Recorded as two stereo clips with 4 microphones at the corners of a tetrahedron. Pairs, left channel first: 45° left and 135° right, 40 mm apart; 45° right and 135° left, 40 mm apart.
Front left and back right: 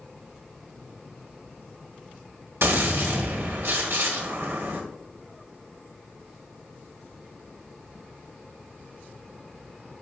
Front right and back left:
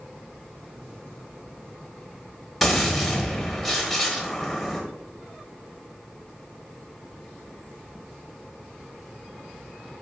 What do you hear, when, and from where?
2.6 s a gunshot: 130° right, 1.2 m